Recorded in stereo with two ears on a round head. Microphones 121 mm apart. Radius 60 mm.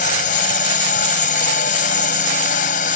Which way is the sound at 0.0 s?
65° left (ahead or behind).